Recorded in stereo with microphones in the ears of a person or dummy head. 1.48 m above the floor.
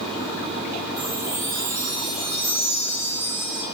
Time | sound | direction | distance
1.0 | a chime | 30° right (ahead or behind) | 1.5 m